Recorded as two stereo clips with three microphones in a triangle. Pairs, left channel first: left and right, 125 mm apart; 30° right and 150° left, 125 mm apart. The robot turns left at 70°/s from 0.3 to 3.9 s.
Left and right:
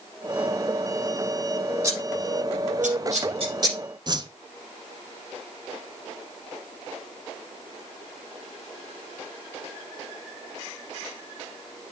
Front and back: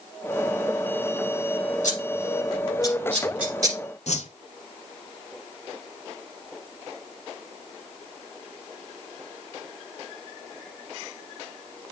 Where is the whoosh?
40° right, 0.7 m.